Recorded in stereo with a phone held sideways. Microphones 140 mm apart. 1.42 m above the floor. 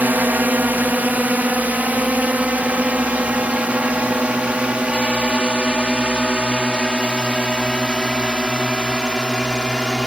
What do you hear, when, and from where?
0.0 s a drone: 10° right (ahead or behind); by 10.1 s 5° right (ahead or behind)